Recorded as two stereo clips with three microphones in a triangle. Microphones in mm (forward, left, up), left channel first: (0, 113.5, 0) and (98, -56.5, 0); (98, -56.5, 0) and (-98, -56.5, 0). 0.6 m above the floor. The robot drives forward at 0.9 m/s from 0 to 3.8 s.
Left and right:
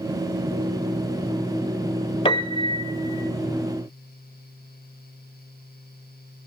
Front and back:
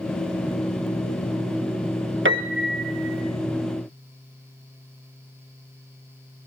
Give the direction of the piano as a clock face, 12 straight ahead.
6 o'clock.